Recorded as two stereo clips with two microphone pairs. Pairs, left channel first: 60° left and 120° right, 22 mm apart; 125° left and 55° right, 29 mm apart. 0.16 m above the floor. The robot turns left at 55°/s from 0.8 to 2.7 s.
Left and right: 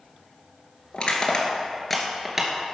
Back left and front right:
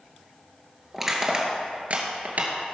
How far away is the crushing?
About 2 m.